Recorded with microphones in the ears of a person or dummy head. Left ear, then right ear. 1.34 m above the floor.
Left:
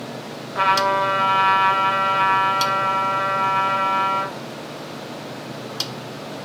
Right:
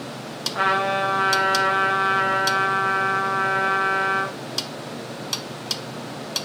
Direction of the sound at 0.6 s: Centre (ahead or behind).